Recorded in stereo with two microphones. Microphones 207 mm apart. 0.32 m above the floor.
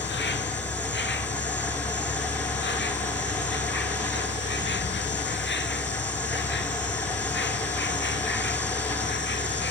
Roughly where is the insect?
Left.